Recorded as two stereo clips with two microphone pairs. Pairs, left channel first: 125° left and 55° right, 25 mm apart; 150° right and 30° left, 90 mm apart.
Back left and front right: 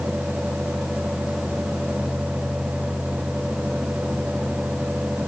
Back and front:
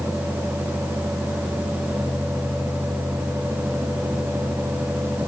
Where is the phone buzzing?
No phone buzzing in this recording.